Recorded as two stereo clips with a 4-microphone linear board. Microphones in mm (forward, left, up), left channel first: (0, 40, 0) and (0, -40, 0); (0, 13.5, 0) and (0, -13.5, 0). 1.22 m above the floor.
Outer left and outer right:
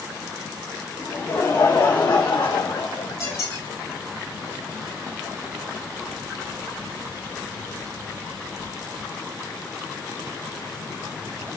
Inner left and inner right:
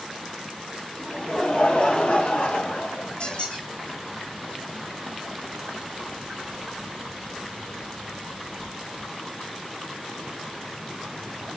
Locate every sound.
1.0 s laughter: 40° left (ahead or behind), 1.6 m; by 3.4 s 75° left (ahead or behind), 1.3 m
3.2 s a squeak: 50° left (ahead or behind), 3.5 m